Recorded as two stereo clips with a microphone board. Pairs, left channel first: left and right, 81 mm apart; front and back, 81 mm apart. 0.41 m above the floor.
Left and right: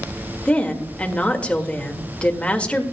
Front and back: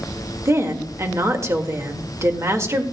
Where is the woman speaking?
155° left, 1.5 m.